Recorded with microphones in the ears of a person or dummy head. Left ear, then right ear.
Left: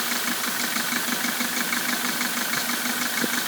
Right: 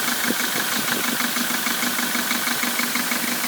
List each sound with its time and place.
Only background noise.